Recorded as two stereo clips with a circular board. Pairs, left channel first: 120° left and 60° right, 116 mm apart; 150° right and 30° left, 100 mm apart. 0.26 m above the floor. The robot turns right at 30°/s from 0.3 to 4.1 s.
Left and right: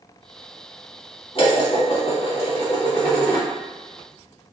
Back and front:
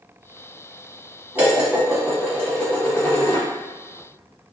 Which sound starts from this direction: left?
Dishes clattering, at 1.4 s.